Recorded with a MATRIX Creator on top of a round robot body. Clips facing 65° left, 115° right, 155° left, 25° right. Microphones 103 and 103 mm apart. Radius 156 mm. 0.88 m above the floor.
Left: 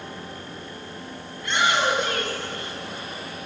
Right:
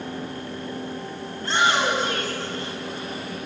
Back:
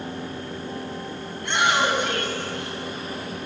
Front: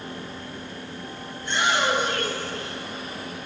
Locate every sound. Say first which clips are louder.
1.4 s a shout: right 1 dB, back 2 dB; 170° right, 8 m